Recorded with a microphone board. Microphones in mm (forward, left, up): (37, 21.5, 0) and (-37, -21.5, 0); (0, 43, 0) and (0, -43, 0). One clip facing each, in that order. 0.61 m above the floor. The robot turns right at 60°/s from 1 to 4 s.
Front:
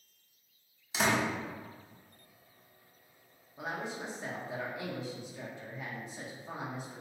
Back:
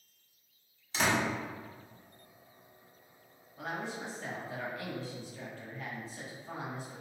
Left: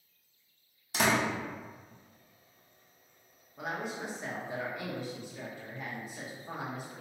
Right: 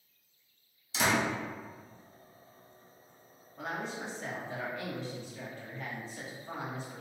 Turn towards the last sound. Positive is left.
turn(degrees=50)